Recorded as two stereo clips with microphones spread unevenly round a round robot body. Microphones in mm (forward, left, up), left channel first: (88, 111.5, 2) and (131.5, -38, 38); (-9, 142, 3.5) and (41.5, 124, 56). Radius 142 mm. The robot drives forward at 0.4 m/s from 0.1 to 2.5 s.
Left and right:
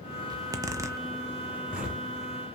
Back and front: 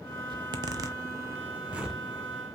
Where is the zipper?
10° right, 0.6 m; by 2.0 s 175° right, 0.7 m.